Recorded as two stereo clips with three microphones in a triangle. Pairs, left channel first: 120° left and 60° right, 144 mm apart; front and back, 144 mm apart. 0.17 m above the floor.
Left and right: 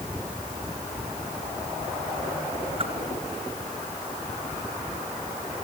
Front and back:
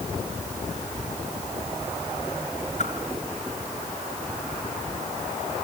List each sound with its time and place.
2.8 s a whoosh: 20° right, 2.5 m